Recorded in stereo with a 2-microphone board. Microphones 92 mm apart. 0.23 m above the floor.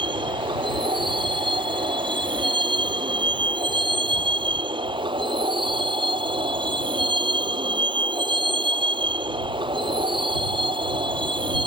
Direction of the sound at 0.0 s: 65° right (ahead or behind).